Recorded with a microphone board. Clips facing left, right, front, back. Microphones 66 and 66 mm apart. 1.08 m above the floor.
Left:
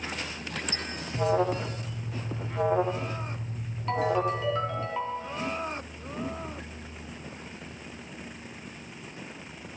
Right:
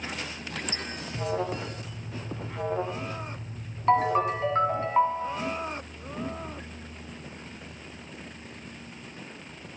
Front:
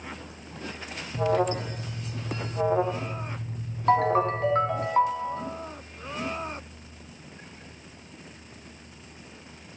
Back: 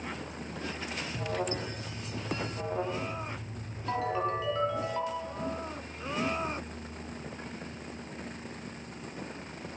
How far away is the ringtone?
About 3.5 m.